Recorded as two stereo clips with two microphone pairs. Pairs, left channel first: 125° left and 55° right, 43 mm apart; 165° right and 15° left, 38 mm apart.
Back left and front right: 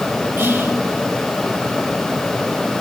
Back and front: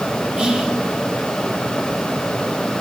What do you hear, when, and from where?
0.4 s whispering: 50° right, 1.8 m